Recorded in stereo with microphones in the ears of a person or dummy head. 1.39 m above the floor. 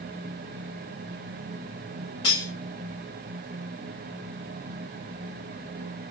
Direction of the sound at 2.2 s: 25° left (ahead or behind).